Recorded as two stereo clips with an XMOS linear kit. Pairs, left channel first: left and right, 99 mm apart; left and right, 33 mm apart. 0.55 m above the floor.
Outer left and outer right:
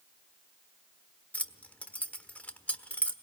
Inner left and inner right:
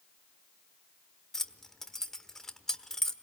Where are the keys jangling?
15° left (ahead or behind), 1.2 m.